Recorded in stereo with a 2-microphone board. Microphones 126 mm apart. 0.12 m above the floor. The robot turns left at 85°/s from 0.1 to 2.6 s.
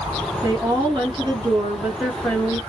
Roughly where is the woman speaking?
Ahead right.